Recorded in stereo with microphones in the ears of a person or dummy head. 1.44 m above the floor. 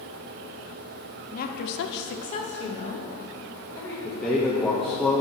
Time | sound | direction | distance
1.3 | a woman speaking | 45° left (ahead or behind) | 0.8 m
4.0 | a man speaking | centre (ahead or behind) | 0.9 m